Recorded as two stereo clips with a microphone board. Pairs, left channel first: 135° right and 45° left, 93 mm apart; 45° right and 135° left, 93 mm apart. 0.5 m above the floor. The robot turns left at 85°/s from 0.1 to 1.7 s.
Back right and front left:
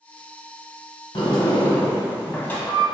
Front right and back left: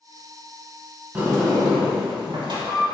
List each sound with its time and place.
1.1 s a sliding door: 155° right, 0.6 m; by 2.8 s 160° left, 0.6 m